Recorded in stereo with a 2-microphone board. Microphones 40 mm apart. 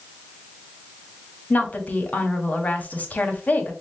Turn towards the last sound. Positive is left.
turn(degrees=35)  # may be behind; listen again after turning